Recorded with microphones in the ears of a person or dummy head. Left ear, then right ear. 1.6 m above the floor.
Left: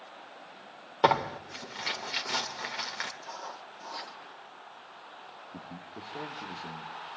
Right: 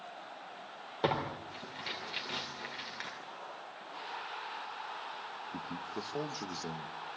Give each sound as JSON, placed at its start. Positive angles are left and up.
{"t": 1.0, "sound": "tearing paper", "side_deg": 35, "distance_m": 2.0}
{"t": 3.2, "sound": "writing", "side_deg": 60, "distance_m": 2.0}
{"t": 5.5, "sound": "a man speaking", "side_deg": -70, "distance_m": 1.7}